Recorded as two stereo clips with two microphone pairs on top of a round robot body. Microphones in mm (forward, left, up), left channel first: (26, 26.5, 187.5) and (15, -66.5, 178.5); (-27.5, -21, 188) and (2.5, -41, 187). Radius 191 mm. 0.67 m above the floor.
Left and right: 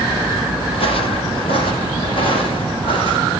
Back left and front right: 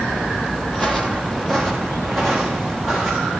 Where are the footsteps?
70° left, 1.7 m; by 3.3 s 60° left, 4 m.